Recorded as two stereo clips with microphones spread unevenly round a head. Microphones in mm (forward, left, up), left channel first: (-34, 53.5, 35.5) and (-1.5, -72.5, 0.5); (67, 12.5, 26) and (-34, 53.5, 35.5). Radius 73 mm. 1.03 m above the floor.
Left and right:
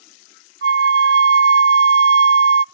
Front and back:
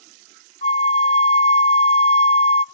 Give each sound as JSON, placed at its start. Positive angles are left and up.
{"t": 0.6, "sound": "a flute", "azimuth_deg": -70, "distance_m": 0.5}